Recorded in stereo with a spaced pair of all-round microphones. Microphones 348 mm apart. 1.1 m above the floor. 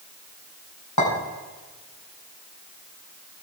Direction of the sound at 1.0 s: 60° left (ahead or behind).